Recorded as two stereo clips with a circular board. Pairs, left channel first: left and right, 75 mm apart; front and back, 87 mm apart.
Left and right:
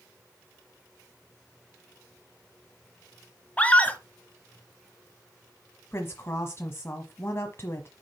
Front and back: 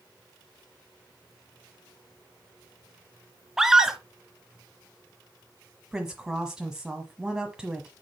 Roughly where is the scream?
Left.